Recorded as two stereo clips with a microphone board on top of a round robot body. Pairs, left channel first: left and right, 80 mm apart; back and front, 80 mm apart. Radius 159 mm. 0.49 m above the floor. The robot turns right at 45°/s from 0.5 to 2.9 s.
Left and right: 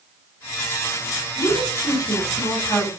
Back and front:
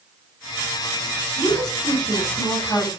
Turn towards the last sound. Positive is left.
turn(degrees=150)